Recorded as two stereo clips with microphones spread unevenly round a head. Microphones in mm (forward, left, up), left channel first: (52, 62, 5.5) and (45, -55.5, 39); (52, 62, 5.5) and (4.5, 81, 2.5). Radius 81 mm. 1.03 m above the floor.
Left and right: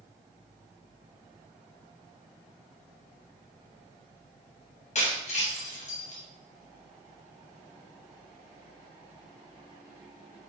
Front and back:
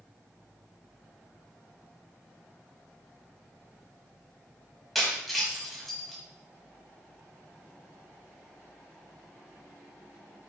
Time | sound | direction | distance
5.0 | breaking glass | 65° left | 4.5 m